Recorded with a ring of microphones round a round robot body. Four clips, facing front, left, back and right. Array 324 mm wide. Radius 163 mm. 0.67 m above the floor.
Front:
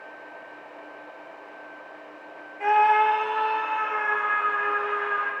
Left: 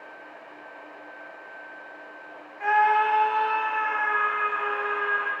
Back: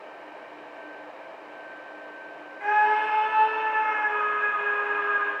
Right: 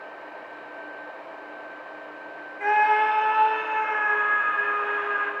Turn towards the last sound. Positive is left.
turn(degrees=-20)